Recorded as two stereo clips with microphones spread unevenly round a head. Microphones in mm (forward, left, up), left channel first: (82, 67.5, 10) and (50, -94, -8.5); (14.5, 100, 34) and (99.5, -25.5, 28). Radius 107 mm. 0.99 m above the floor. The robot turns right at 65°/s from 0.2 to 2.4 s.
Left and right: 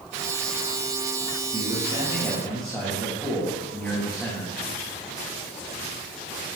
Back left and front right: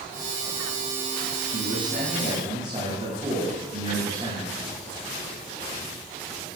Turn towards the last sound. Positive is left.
turn(degrees=-10)